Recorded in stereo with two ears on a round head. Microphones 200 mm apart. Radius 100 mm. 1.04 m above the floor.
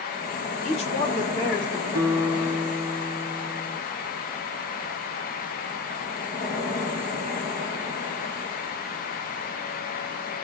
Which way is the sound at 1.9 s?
10° left (ahead or behind).